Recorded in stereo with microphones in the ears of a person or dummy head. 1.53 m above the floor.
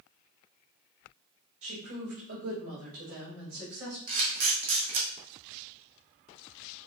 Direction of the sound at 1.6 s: 65° right (ahead or behind).